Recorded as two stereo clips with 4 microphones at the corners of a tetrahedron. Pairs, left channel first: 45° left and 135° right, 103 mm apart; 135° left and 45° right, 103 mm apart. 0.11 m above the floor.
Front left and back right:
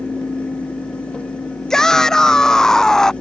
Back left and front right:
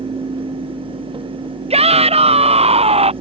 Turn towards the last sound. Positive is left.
turn(degrees=-40)